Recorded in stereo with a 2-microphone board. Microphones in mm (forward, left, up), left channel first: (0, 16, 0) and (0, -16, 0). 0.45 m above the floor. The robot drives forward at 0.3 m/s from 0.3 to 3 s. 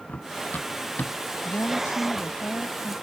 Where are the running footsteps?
65° left (ahead or behind); by 1.2 s 70° left (ahead or behind).